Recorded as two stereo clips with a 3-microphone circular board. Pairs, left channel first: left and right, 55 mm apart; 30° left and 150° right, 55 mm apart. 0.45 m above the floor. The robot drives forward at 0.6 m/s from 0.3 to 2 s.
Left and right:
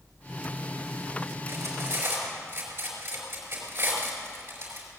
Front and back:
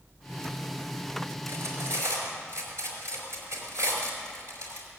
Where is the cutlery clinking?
125° right, 4 m; by 4.9 s 130° right, 4.5 m.